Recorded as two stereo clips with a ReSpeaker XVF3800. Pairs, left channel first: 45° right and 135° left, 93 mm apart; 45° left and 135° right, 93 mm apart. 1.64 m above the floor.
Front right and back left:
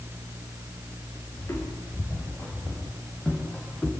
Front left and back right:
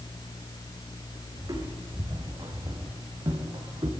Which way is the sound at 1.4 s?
95° right.